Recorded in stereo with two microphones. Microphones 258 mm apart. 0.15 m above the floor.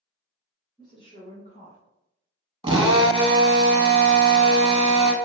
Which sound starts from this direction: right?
A drill, at 2.6 s.